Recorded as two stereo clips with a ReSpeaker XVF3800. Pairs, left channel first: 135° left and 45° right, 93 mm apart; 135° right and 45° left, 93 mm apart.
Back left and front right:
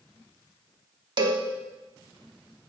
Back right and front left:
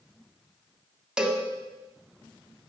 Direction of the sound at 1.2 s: 35° right.